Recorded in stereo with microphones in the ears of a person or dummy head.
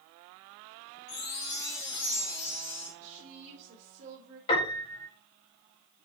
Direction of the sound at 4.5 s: 35° left (ahead or behind).